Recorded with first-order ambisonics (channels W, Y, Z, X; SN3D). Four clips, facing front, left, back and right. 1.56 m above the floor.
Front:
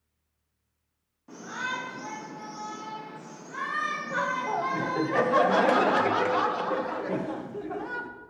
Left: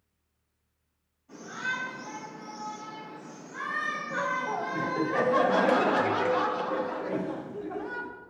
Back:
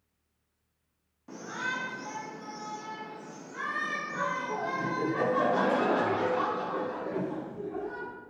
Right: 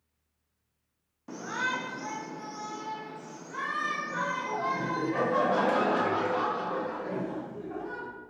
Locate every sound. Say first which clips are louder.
1.3 s a shout: right 2 dB, front 1 dB; 100° right, 0.8 m; by 5.1 s 15° right, 3.5 m
4.1 s laughter: left 2 dB, front 4 dB; 20° left, 1.0 m